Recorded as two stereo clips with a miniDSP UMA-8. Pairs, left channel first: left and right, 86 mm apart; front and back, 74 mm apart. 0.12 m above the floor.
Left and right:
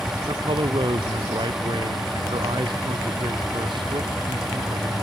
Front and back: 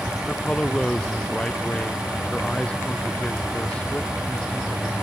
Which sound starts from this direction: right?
A man speaking, at 0.3 s.